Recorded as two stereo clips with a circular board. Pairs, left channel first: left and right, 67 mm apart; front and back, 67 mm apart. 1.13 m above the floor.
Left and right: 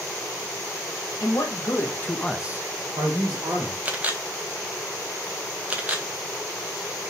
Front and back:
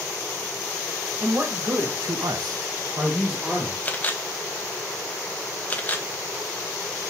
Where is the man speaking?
130° left, 1.6 m; by 3.8 s 90° right, 1.6 m.